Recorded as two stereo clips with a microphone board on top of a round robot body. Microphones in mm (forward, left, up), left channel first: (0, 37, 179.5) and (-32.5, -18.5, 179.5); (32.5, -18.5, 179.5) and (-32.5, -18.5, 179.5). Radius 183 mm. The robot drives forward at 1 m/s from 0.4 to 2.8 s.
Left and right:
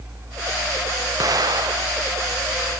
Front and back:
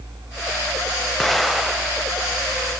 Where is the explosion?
85° right, 2.5 m; by 2.0 s 105° right, 2.5 m.